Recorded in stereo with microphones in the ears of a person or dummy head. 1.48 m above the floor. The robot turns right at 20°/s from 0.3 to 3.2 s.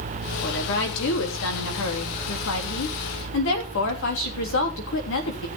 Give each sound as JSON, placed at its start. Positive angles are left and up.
{"t": 0.4, "sound": "a woman speaking", "azimuth_deg": 60, "distance_m": 3.0}